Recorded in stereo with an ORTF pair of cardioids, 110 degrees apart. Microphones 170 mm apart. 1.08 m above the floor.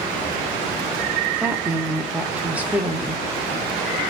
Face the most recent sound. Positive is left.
turn(degrees=-10)